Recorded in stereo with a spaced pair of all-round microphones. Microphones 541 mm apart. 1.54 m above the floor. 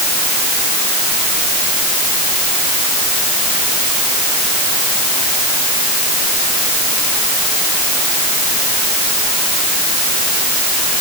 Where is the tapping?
I don't hear tapping.